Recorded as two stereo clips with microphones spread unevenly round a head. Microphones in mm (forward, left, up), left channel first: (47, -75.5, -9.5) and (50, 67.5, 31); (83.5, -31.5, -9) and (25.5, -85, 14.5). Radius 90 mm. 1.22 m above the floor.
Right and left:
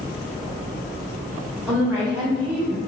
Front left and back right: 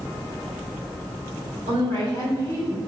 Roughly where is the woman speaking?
Behind.